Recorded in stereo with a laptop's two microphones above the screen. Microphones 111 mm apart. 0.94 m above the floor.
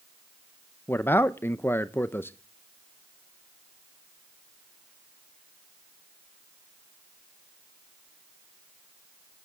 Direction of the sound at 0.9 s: 20° left (ahead or behind).